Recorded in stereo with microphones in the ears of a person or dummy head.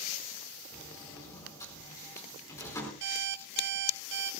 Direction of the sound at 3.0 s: 65° right (ahead or behind).